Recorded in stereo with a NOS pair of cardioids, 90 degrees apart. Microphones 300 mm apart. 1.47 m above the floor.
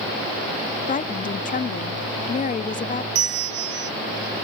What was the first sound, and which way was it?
A woman speaking, 25° left.